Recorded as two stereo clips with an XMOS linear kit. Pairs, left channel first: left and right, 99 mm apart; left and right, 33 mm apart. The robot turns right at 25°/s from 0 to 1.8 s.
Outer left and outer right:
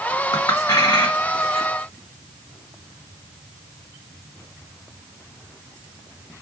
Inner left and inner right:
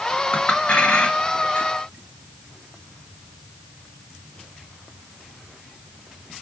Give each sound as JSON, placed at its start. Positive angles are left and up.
{"t": 0.3, "sound": "a clink", "side_deg": 35, "distance_m": 1.4}